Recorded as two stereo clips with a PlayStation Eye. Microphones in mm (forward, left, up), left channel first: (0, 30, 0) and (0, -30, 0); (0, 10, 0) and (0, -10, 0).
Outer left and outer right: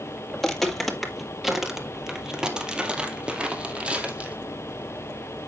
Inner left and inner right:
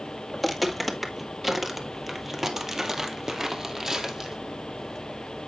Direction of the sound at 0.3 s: 5° left (ahead or behind).